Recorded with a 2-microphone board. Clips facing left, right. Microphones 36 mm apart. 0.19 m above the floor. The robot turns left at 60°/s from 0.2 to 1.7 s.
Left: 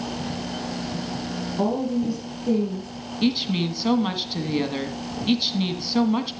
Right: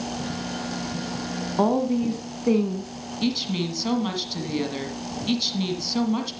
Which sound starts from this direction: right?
A woman speaking, at 1.6 s.